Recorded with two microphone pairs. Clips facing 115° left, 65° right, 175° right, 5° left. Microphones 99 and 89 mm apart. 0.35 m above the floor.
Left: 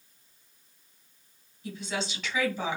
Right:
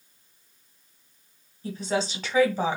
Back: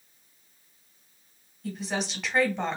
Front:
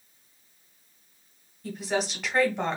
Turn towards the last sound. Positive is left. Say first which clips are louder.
# right 7 dB, front 3 dB
turn(degrees=-85)